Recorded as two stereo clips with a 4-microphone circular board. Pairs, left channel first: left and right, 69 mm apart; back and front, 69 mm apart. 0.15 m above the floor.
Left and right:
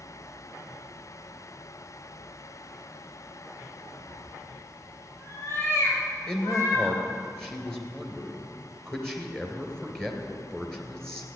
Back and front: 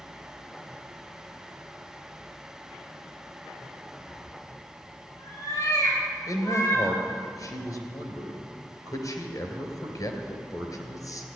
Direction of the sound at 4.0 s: 150° left.